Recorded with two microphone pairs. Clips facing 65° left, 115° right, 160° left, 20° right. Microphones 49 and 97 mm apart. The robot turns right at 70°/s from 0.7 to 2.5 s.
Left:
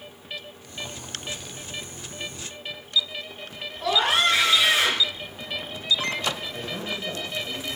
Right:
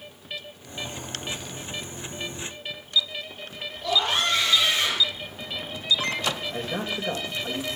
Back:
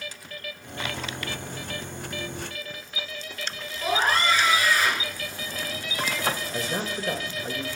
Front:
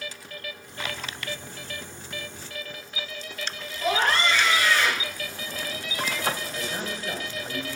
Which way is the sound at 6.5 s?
175° right.